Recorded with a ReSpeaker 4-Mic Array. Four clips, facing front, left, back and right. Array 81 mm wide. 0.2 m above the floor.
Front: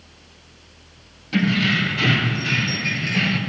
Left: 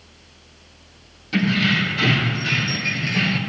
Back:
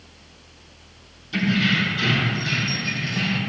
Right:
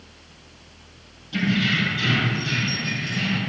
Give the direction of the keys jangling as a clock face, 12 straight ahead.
11 o'clock.